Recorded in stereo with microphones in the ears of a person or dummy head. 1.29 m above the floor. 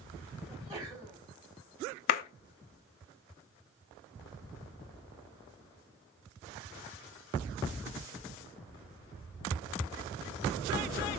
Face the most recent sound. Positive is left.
turn(degrees=50)  # may be behind; listen again after turning